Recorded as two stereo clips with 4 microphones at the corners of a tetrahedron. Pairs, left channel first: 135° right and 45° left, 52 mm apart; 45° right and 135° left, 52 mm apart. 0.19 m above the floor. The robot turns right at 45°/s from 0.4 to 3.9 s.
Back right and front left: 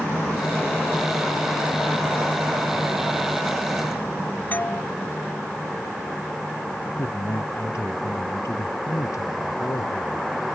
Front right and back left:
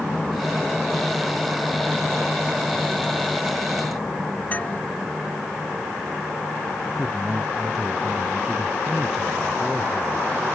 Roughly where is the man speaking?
Behind right.